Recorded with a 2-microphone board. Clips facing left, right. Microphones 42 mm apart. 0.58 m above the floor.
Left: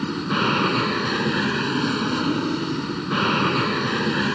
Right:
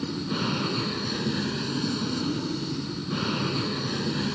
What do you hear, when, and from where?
0.0 s an aircraft: 50° left (ahead or behind)